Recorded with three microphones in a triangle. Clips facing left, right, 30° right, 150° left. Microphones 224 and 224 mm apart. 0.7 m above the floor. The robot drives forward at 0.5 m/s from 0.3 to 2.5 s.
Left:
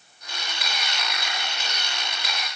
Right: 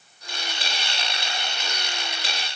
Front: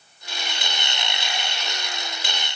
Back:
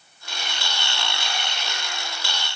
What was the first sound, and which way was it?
Only background noise.